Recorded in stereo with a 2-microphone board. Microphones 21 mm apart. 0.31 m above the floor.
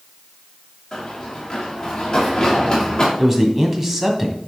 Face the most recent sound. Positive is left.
turn(degrees=-20)  # may be behind; listen again after turning